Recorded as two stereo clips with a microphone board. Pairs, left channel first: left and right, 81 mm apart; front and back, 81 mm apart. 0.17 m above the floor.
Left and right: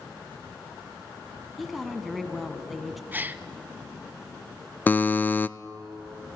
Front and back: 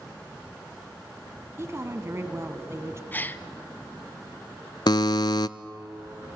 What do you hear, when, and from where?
1.6 s a woman speaking: straight behind, 1.7 m
3.1 s a gasp: 45° right, 0.7 m
4.9 s a buzzer: 25° left, 0.5 m